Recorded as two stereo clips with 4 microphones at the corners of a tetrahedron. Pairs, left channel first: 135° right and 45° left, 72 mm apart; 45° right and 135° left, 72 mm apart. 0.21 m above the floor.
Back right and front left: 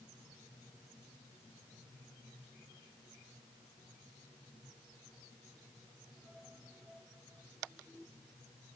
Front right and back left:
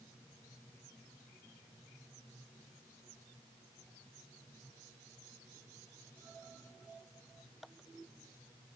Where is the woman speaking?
No woman speaking in this recording.